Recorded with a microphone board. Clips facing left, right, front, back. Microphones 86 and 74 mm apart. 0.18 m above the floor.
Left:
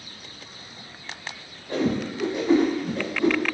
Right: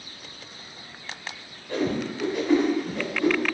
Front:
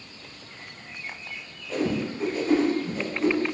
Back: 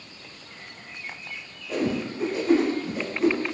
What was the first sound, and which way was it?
A whoosh, 115° left.